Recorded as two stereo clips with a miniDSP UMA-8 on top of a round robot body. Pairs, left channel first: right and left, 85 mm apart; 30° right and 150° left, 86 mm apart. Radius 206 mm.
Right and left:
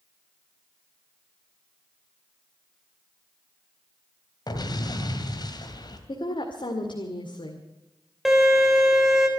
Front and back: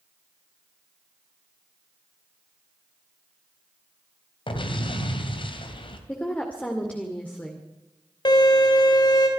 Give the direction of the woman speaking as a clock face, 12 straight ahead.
3 o'clock.